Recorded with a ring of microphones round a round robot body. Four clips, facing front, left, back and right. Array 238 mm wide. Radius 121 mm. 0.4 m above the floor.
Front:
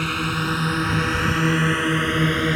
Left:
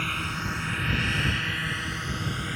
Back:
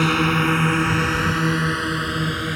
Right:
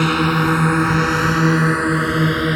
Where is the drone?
115° right; by 2.6 s 70° right.